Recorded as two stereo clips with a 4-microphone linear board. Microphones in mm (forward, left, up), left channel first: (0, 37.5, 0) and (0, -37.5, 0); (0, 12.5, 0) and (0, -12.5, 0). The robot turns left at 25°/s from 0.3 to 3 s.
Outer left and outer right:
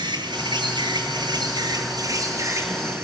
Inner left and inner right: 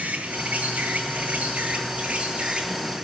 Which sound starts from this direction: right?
An insect, at 0.0 s.